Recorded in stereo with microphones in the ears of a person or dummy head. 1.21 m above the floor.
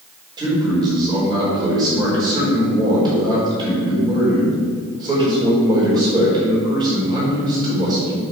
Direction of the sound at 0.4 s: 20° right (ahead or behind).